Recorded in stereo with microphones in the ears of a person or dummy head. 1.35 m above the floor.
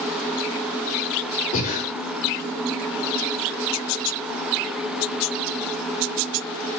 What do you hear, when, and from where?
1.5 s breathing: 45° left (ahead or behind), 1.8 m